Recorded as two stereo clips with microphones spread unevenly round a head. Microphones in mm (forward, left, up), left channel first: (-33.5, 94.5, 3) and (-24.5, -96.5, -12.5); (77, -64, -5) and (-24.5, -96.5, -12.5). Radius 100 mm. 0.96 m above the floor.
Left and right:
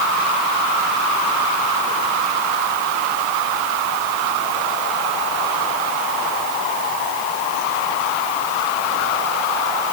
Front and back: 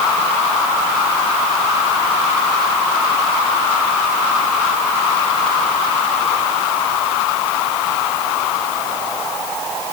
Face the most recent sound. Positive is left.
No sound to turn to.